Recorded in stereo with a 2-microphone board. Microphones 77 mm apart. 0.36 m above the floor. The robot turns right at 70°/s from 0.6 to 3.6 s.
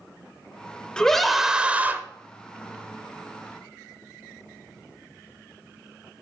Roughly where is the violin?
I don't hear a violin.